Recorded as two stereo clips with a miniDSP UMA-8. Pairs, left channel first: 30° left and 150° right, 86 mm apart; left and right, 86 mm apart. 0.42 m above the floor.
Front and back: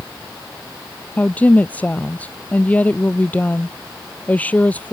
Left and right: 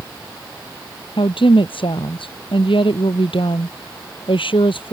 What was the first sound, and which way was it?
A woman speaking, 100° left.